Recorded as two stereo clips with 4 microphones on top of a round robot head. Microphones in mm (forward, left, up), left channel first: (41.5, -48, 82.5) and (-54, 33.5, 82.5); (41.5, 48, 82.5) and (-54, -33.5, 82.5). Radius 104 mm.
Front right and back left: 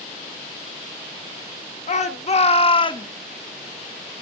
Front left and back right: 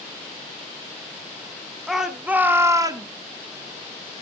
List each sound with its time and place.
1.9 s a shout: 50° right, 1.5 m; by 3.1 s 90° right, 1.3 m